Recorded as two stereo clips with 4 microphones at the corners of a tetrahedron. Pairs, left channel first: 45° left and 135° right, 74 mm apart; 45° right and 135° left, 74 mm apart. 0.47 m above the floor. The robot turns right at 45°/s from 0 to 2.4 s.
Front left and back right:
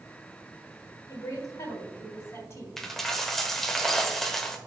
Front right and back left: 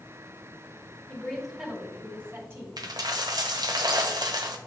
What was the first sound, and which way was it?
A woman speaking, 25° left.